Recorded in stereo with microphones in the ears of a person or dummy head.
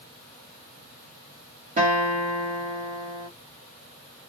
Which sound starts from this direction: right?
A guitar, at 1.8 s.